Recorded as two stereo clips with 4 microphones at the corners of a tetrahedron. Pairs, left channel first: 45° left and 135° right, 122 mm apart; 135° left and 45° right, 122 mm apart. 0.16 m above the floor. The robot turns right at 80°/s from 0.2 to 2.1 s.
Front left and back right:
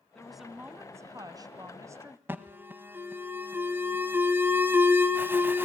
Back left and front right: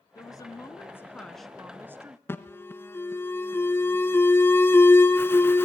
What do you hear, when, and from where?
0.1 s a woman speaking: 125° left, 1.2 m; by 2.2 s 80° right, 1.2 m
2.3 s an alarm: 175° left, 1.1 m